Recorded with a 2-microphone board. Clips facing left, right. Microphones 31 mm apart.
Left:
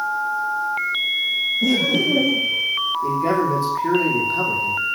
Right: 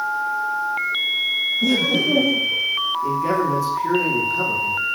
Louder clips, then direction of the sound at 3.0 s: Left 2 dB; 45° left (ahead or behind).